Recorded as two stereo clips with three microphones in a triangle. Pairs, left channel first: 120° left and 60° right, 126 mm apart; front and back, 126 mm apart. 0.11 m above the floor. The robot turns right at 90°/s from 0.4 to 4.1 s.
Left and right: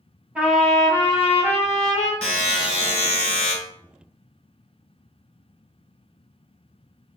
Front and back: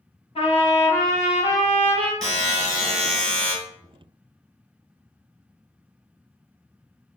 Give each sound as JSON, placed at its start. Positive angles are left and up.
{"t": 0.3, "sound": "a trumpet", "azimuth_deg": 20, "distance_m": 1.0}
{"t": 2.2, "sound": "a buzzer", "azimuth_deg": -170, "distance_m": 1.7}